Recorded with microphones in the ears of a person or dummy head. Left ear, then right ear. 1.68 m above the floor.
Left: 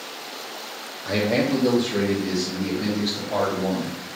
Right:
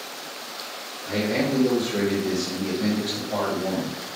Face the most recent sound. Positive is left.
turn(degrees=35)  # may be behind; listen again after turning